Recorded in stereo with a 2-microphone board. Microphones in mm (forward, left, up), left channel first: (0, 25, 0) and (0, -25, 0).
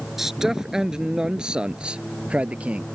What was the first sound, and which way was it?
A man speaking, 5° right (ahead or behind).